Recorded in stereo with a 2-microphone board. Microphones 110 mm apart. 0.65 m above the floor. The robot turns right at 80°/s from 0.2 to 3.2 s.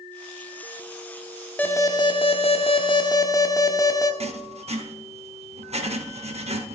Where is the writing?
65° right (ahead or behind), 0.8 m.